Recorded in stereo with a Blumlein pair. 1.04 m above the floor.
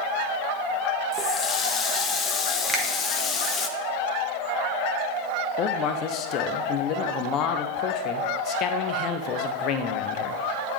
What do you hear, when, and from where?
1.1 s a running tap: 15° left, 0.6 m
2.7 s a finger snap: 10° right, 1.1 m
5.6 s a man speaking: 35° left, 0.7 m